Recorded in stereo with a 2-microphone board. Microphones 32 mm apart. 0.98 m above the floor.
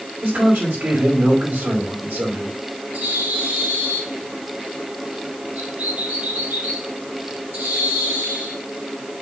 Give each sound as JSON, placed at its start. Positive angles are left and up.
{"t": 0.2, "sound": "a man speaking", "side_deg": -85, "distance_m": 5.0}
{"t": 2.9, "sound": "a bird", "side_deg": -75, "distance_m": 5.0}